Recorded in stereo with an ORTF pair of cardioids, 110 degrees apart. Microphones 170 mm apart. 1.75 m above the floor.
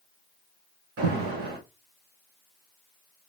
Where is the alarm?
70° right, 2 m.